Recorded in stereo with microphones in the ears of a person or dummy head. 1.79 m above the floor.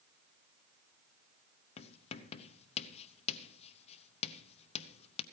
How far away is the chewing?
I don't hear chewing.